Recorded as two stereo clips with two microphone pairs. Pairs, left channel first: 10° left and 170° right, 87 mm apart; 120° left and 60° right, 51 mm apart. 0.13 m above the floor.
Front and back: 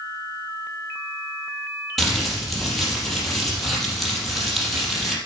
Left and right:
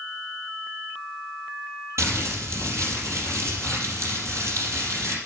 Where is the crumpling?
75° right, 4.5 m.